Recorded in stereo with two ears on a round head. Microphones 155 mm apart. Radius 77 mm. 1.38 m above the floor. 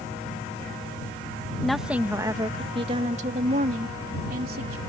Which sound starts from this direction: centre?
A woman speaking, at 1.6 s.